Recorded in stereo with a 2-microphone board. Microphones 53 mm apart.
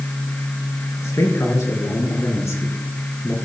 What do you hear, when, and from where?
1.0 s a man speaking: 75° left (ahead or behind), 4.5 m; by 3.4 s 45° left (ahead or behind), 3.5 m